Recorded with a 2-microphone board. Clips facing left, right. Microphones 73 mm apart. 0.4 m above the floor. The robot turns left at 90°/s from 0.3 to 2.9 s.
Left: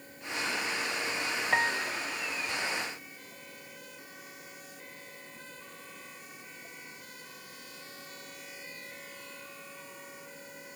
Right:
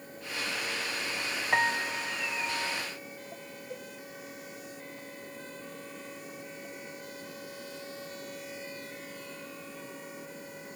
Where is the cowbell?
70° right (ahead or behind).